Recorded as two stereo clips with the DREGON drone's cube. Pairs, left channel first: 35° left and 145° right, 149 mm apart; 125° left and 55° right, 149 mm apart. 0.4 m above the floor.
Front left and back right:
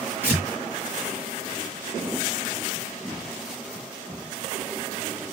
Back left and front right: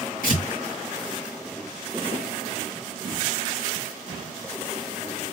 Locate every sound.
0.2 s tearing paper: 135° left, 3 m